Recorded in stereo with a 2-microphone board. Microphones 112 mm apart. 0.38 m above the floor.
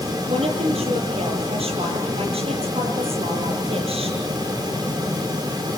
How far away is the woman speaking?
About 9 m.